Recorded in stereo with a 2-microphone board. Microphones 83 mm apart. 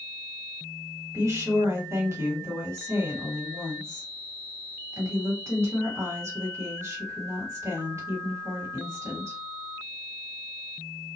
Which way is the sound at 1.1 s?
35° right (ahead or behind).